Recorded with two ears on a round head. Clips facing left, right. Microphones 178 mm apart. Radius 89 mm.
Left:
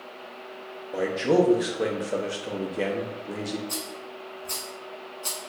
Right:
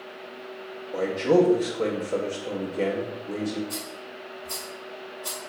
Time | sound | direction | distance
0.9 | a man speaking | 10° left (ahead or behind) | 0.5 m
3.7 | a rattle | 55° left (ahead or behind) | 1.8 m